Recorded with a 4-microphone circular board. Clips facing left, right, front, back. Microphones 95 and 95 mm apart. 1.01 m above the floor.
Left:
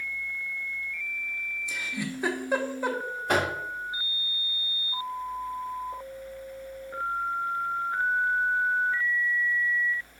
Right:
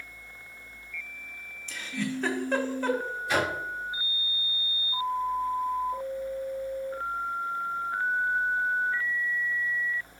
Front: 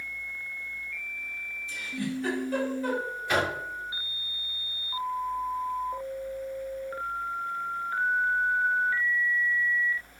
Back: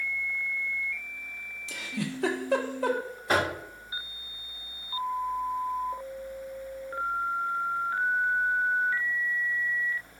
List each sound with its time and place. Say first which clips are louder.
1.7 s a giggle: right 3 dB, front 1 dB; 170° left, 1.2 m
3.3 s knocking: left 2 dB, back 1 dB; 125° left, 2 m